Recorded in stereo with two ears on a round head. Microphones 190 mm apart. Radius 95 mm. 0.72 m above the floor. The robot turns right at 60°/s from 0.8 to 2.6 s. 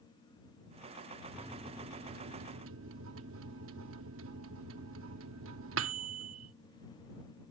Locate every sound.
1.3 s a microwave: 175° right; by 6.5 s 100° right